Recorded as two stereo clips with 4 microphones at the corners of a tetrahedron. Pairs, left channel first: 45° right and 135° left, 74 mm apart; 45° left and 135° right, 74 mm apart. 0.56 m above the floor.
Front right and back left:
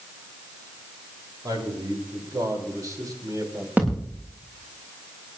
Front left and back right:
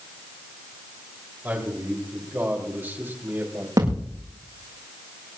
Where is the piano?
I don't hear a piano.